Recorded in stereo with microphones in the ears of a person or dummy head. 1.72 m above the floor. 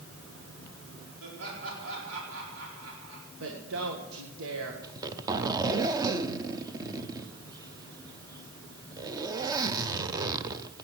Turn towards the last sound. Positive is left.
turn(degrees=-20)  # may be behind; listen again after turning